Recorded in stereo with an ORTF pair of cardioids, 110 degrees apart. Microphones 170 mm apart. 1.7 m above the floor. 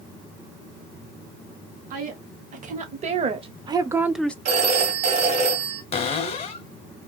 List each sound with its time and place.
1.9 s a woman speaking: 55° right, 1.6 m; by 4.3 s 10° left, 0.5 m
4.5 s a phone ringing: 60° right, 2.0 m
5.9 s a cupboard door: 40° left, 0.8 m